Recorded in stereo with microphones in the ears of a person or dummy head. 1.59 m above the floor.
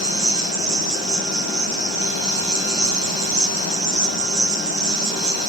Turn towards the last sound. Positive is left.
turn(degrees=-30)  # may be behind; listen again after turning